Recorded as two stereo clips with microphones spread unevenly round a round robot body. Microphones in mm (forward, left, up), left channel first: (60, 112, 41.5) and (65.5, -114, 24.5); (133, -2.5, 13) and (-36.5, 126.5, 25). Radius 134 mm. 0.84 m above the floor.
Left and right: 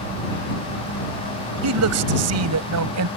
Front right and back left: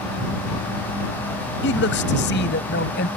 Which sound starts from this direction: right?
A man speaking, at 1.6 s.